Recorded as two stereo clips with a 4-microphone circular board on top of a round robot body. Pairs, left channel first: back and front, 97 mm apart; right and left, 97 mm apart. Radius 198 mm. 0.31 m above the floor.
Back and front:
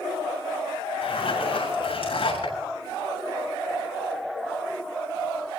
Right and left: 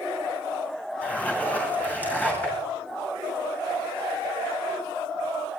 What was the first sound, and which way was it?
A zipper, 160° right.